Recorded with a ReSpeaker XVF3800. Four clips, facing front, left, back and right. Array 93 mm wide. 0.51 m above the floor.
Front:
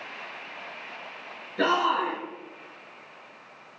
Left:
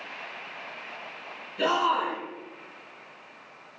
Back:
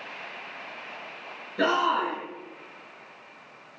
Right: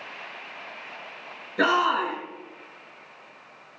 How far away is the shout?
About 6.5 m.